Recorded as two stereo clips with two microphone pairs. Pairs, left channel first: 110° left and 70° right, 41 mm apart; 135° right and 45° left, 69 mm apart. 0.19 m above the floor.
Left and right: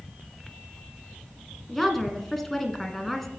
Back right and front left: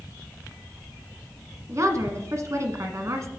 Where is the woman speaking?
25° left, 1.5 m.